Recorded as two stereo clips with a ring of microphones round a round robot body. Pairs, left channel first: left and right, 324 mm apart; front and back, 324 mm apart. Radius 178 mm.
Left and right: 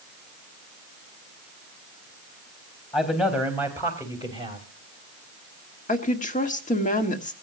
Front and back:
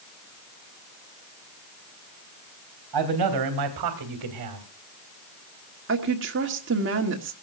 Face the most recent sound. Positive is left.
turn(degrees=145)